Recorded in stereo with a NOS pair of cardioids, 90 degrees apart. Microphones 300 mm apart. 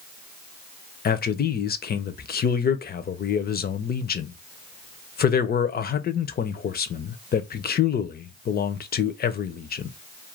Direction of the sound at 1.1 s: 35° left.